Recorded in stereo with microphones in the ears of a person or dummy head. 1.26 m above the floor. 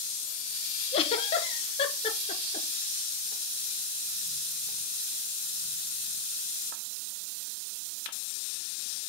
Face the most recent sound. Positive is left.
turn(degrees=35)  # may be behind; listen again after turning